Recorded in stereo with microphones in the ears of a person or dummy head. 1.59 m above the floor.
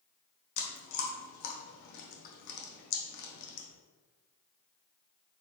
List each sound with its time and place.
0.6 s chewing: 60° left (ahead or behind), 0.8 m